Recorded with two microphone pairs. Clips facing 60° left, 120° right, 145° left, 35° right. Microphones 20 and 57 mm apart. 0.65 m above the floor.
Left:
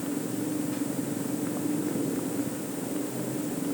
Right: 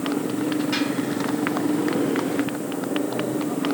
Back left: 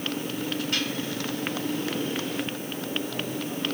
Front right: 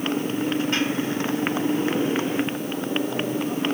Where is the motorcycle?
100° right.